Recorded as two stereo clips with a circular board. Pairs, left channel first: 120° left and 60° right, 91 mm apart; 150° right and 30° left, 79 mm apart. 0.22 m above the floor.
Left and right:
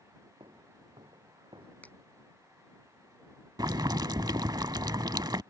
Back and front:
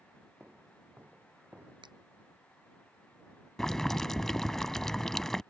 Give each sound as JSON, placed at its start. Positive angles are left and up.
{"t": 0.4, "sound": "footsteps", "azimuth_deg": -40}
{"t": 1.8, "sound": "a finger snap", "azimuth_deg": 45}
{"t": 3.6, "sound": "boiling", "azimuth_deg": -70}